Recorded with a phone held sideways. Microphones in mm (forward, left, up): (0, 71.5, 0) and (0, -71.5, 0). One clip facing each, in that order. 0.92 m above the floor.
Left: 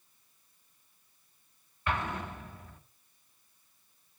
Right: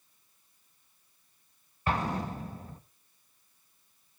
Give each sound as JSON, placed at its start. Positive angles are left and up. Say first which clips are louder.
{"t": 1.9, "sound": "an explosion", "louder": "right 3 dB", "side_deg": -35, "distance_m": 1.4}